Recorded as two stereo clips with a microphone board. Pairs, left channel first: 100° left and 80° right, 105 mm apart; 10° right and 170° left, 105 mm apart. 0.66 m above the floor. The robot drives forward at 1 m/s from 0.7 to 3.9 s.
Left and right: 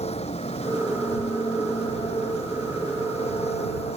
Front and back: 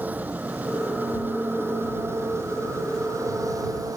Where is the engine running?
95° left; by 4.0 s 110° left.